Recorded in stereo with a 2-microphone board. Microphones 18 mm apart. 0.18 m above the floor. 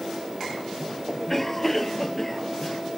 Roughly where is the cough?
Centre.